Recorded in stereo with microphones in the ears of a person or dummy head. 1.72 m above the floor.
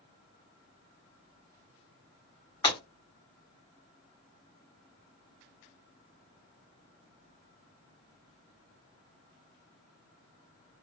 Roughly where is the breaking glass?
Left.